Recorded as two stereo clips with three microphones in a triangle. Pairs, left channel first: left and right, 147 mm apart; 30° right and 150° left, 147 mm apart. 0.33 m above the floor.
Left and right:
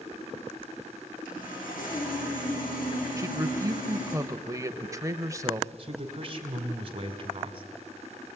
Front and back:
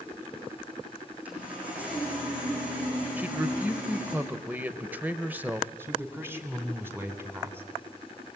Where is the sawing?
70° left, 6 m.